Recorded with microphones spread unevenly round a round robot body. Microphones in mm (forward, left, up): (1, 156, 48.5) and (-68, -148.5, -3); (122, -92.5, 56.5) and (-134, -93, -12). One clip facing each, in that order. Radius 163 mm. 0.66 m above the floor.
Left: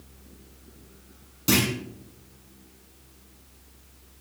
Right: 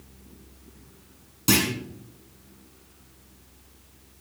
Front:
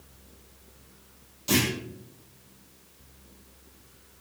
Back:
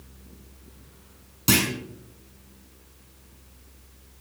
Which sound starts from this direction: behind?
A clunk, at 1.5 s.